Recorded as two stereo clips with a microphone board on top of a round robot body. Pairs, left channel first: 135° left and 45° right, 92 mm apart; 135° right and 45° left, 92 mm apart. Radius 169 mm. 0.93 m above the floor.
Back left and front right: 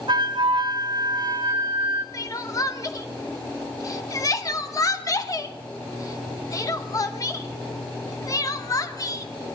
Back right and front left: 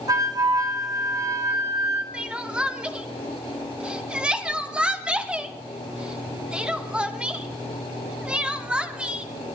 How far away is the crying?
About 1.1 m.